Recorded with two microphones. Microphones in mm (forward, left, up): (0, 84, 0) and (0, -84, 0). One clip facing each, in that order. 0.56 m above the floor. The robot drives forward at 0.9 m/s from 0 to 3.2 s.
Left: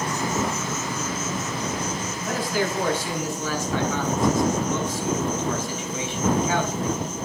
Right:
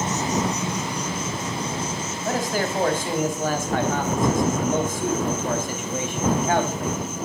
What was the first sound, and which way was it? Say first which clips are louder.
An insect: right 1 dB; 25° right (ahead or behind).